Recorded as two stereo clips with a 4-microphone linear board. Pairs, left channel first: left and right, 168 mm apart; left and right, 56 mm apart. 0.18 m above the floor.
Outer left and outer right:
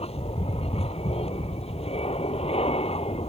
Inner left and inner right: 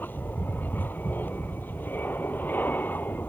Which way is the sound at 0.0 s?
35° left (ahead or behind).